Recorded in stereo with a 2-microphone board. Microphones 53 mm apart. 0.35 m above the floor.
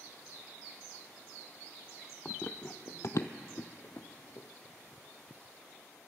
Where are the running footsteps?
25° left (ahead or behind), 0.6 m; by 4.5 s 65° left (ahead or behind), 1.2 m.